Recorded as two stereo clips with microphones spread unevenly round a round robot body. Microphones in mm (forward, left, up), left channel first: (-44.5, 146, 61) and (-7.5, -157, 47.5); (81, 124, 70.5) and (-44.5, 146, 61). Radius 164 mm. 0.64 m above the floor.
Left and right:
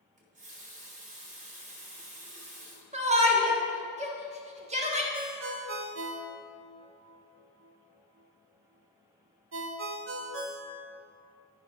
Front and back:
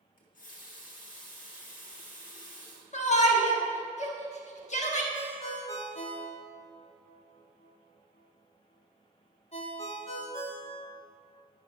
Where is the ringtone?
45° right, 1.0 m.